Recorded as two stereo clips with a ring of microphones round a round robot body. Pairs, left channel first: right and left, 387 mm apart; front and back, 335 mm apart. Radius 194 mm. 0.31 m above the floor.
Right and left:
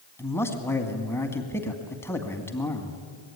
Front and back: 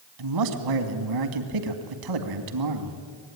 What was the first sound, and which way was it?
A man speaking, 175° right.